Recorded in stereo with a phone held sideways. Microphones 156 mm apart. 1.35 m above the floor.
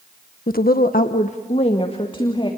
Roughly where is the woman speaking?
Left.